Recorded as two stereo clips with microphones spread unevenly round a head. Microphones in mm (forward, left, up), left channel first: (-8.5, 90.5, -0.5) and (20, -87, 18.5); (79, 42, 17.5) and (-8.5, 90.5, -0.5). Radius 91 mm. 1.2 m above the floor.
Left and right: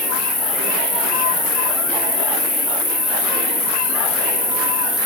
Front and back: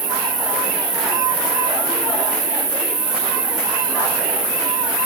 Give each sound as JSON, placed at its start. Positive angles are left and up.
{"t": 0.0, "sound": "an insect", "azimuth_deg": -170, "distance_m": 1.4}